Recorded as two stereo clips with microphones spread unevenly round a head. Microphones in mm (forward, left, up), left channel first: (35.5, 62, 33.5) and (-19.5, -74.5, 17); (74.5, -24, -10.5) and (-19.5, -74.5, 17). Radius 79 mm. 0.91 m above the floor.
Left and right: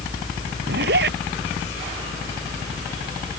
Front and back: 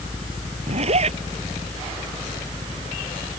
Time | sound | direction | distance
0.7 | a zipper | 135° right | ?